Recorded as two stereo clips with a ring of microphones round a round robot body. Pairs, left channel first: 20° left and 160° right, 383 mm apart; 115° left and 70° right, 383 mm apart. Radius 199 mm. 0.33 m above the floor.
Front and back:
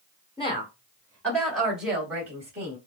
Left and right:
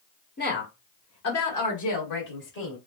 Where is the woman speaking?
85° left, 1.6 m; by 2.8 s 120° left, 2.5 m.